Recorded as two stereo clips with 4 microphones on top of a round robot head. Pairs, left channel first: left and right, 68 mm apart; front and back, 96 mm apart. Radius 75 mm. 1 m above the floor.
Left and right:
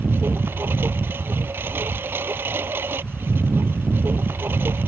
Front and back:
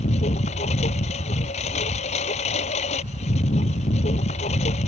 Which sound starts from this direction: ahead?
A lawn mower, at 0.0 s.